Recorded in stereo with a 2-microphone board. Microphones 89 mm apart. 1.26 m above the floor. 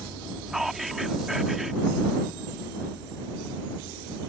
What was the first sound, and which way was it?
Whispering, 5° right (ahead or behind).